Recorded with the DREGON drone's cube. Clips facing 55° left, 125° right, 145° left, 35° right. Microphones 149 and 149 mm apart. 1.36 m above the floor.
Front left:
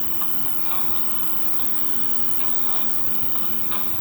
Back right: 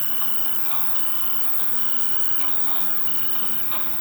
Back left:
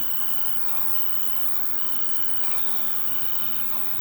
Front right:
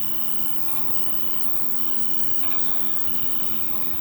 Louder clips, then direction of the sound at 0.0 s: Front left 3 dB, front right 4 dB; 110° left.